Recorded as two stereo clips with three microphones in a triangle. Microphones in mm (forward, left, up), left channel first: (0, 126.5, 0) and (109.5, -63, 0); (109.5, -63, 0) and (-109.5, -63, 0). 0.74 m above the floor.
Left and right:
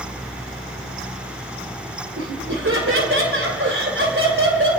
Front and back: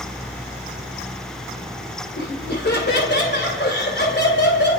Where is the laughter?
40° right, 3 m.